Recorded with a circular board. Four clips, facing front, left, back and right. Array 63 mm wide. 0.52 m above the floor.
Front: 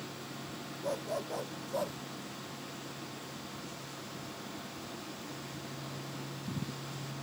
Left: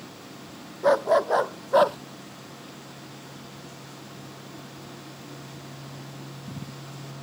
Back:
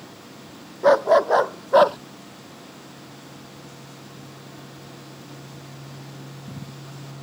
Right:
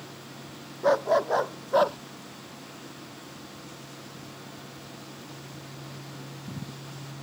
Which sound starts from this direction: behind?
A dog barking, at 0.8 s.